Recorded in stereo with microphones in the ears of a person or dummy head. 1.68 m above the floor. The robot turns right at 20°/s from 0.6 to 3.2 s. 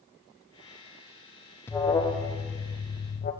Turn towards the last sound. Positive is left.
turn(degrees=40)